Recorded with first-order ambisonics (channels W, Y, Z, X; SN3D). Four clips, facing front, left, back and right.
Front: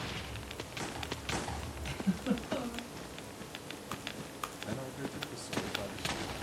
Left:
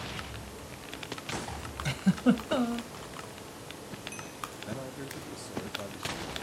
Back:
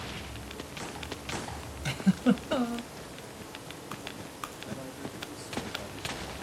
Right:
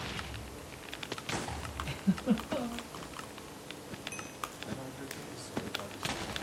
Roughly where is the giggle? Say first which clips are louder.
Left 5 dB, back 8 dB; behind left.